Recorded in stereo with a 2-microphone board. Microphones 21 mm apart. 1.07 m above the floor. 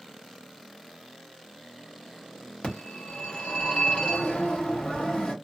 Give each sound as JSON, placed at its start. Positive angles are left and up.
{"t": 2.6, "sound": "a phone ringing", "side_deg": 75, "distance_m": 1.2}